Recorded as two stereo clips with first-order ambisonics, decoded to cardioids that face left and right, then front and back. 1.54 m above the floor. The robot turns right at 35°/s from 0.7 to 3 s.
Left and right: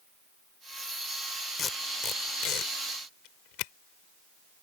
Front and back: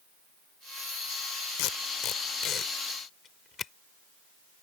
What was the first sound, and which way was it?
Tape being pulled, 20° left.